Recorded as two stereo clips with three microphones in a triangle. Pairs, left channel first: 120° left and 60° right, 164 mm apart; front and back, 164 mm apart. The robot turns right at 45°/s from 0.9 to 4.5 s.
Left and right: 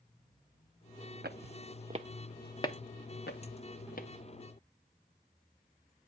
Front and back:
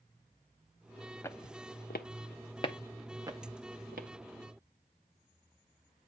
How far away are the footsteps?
About 0.8 m.